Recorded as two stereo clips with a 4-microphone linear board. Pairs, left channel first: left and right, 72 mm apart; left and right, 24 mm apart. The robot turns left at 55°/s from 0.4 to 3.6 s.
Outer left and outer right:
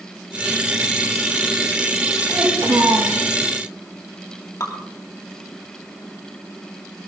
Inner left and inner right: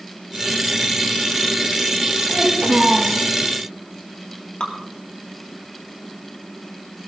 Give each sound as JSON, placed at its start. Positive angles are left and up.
{"t": 2.3, "sound": "a child speaking", "azimuth_deg": -50, "distance_m": 6.5}
{"t": 4.6, "sound": "dripping", "side_deg": 60, "distance_m": 3.0}